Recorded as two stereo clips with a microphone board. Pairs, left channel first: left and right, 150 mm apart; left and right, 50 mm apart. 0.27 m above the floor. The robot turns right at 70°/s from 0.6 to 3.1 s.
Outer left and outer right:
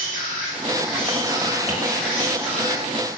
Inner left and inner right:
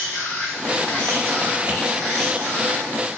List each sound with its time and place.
0.0 s an insect: 75° left, 2.5 m; by 3.2 s 110° right, 2.5 m
1.7 s tapping: 60° right (ahead or behind), 2.0 m; by 1.8 s 70° right (ahead or behind), 2.0 m